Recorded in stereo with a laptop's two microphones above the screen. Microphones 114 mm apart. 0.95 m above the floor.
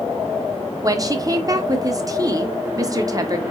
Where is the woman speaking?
30° right (ahead or behind), 0.6 m.